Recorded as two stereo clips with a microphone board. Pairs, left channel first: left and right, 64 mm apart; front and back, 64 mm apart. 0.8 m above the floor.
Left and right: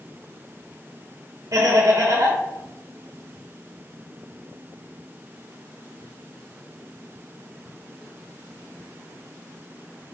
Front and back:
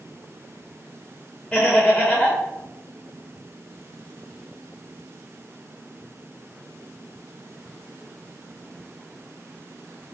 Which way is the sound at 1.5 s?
80° right.